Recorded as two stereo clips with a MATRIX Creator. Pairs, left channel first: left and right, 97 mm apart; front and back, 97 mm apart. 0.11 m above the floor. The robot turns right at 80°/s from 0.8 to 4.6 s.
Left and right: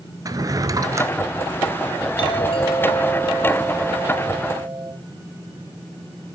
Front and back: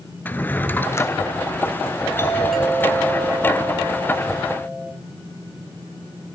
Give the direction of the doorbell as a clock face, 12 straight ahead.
10 o'clock.